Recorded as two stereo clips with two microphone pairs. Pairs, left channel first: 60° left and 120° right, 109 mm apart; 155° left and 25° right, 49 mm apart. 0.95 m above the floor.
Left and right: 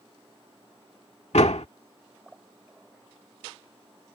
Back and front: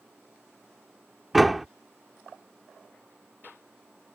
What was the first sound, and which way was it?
A door slam, 60° left.